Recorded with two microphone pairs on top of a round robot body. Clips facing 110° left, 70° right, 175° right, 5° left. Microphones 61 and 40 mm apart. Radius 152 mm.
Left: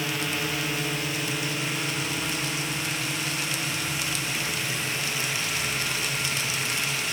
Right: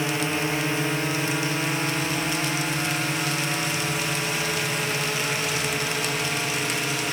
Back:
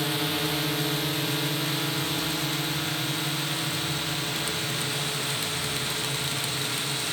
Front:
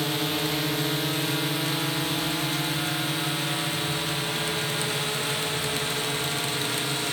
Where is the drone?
80° right; by 7.1 s 60° right.